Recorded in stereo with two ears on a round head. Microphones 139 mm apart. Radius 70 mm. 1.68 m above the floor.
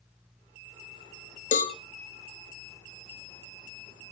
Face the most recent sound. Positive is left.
turn(degrees=50)  # may be behind; listen again after turning